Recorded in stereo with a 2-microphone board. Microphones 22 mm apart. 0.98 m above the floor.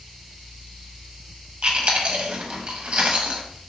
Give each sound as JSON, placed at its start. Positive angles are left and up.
{"t": 1.6, "sound": "chewing", "side_deg": -55, "distance_m": 0.6}